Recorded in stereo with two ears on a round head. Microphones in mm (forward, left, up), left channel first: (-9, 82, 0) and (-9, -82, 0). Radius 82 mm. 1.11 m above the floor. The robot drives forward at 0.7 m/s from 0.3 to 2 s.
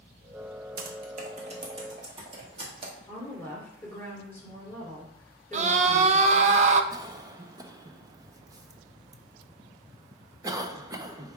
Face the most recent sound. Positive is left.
turn(degrees=-20)  # may be behind; listen again after turning